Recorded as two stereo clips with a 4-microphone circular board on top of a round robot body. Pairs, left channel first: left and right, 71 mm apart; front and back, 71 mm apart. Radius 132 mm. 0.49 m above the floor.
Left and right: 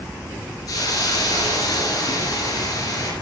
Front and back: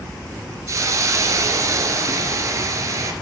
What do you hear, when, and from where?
0.7 s a hiss: 135° left, 2.5 m